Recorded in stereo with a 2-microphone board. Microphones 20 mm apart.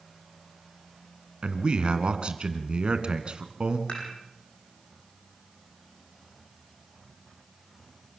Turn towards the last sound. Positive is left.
turn(degrees=60)  # may be behind; listen again after turning